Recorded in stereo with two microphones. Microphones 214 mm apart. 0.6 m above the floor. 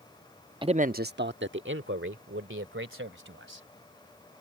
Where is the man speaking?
20° right (ahead or behind); by 3.7 s 70° right (ahead or behind).